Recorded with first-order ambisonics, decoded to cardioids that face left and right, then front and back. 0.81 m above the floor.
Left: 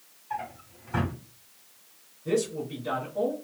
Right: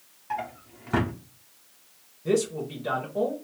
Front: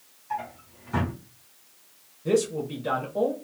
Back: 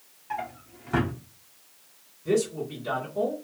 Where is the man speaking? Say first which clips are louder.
Right 2 dB, front 2 dB; 45° right, 1.2 m.